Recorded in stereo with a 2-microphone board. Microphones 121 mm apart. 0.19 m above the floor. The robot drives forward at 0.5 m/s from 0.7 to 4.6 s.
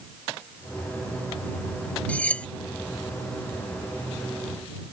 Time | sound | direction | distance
2.1 | cutlery clinking | 10° left (ahead or behind) | ?